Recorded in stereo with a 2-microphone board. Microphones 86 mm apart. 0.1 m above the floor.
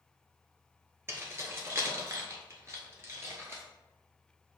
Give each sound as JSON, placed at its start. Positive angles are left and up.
{"t": 1.1, "sound": "keys jangling", "side_deg": -25, "distance_m": 1.3}